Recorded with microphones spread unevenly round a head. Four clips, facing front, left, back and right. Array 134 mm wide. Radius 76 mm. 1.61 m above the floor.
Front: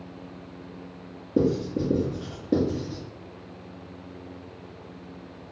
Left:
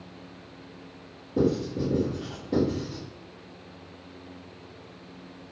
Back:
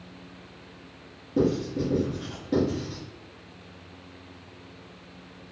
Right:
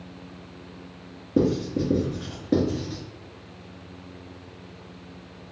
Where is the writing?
55° right, 1.4 m.